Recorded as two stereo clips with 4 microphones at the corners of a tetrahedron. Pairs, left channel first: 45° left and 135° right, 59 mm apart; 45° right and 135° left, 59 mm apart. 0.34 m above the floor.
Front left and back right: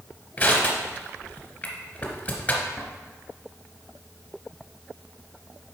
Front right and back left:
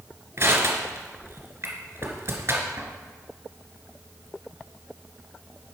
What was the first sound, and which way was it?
Crushing, 110° left.